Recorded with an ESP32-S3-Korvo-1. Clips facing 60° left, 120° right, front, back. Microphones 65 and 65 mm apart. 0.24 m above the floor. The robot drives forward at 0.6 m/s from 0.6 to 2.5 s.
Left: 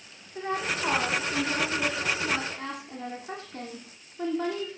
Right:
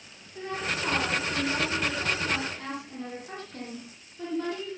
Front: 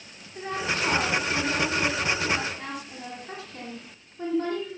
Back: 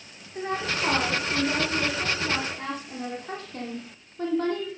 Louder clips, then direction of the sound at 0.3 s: Left 2 dB, back 1 dB; 125° left.